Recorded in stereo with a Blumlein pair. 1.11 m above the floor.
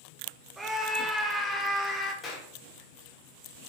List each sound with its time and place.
0.6 s a scream: 10° right, 1.4 m; by 2.1 s straight ahead, 2 m
2.2 s a clap: 25° left, 2 m